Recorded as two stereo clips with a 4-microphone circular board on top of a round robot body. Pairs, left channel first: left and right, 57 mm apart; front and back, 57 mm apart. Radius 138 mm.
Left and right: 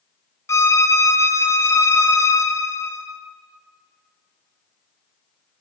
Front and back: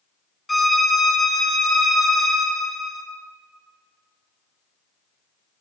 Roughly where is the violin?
Left.